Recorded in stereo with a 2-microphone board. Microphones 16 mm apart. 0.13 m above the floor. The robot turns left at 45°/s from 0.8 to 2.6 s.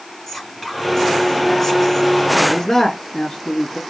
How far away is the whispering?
About 1.3 m.